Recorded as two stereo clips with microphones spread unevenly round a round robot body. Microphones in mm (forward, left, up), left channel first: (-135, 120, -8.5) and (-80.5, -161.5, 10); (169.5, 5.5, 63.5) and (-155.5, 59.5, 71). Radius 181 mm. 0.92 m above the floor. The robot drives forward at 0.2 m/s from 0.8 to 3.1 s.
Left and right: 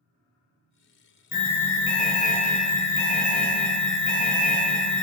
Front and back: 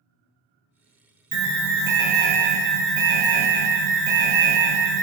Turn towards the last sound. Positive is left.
turn(degrees=165)